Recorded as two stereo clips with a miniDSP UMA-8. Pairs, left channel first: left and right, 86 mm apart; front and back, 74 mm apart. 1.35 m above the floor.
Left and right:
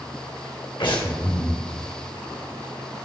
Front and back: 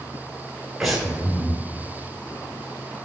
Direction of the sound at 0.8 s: 95° left.